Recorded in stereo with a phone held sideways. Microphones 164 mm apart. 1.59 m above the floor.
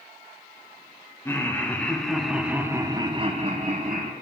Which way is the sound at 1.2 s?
15° left (ahead or behind).